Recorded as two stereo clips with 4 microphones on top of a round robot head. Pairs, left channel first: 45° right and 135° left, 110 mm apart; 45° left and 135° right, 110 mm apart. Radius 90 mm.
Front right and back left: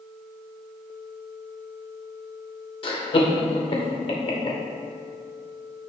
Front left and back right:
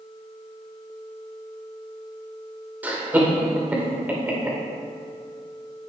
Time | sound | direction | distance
2.8 | laughter | 65° right | 2.5 m